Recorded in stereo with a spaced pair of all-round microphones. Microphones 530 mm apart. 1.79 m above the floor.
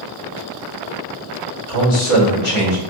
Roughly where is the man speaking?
Left.